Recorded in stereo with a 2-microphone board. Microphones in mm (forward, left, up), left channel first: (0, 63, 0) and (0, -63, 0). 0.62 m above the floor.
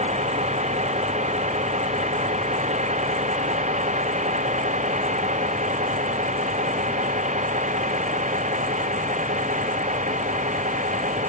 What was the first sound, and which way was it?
A vehicle, 65° right (ahead or behind).